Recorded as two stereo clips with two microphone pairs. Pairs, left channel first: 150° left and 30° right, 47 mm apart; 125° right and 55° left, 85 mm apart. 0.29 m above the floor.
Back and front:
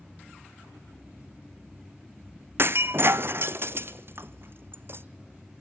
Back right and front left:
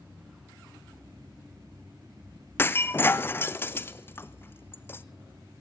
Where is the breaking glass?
65° right, 0.6 m.